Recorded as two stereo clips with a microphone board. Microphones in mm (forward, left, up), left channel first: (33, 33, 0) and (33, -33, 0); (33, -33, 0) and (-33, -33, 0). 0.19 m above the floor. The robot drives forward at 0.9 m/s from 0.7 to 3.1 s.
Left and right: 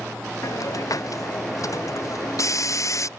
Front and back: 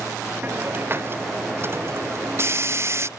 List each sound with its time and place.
0.4 s a hiss: 125° left; by 3.1 s 130° left